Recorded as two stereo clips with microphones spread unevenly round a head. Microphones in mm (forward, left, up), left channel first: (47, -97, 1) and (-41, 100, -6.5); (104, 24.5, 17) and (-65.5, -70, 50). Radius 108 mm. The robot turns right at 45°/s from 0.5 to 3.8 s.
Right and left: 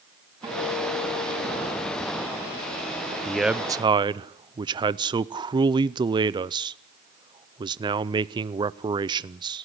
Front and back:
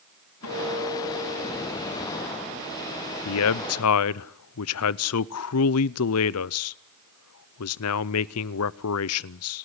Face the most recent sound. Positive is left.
turn(degrees=45)